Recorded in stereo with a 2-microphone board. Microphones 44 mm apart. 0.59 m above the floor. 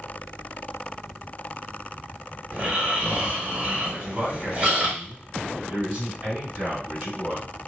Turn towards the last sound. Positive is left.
turn(degrees=-40)  # may be behind; listen again after turning